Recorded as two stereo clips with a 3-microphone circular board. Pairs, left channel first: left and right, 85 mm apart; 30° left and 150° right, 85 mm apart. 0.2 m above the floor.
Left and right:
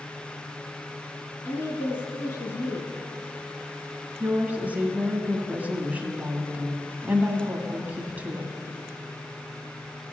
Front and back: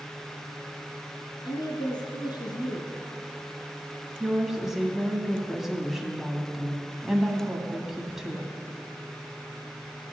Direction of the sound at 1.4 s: 40° left.